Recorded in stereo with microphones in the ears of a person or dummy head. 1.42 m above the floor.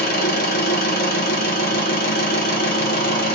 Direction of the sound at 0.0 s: 55° left (ahead or behind).